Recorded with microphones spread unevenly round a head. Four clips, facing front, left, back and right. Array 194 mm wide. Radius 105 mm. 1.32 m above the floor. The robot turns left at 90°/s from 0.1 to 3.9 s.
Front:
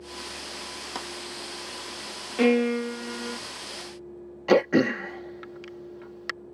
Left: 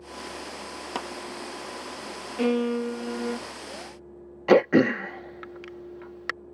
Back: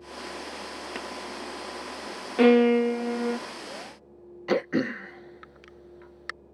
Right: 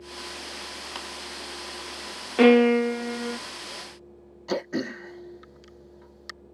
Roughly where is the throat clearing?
Left.